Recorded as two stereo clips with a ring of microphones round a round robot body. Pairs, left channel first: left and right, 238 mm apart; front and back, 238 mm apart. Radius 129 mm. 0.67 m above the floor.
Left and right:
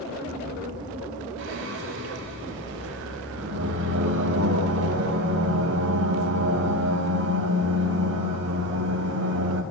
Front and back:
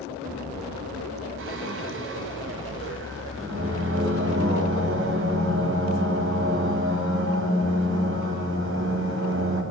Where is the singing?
135° right, 5.5 m.